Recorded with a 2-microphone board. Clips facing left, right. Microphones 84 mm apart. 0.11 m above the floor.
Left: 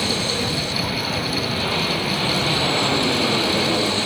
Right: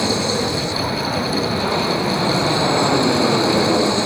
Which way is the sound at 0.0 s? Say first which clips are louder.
Right 4 dB; 20° right (ahead or behind).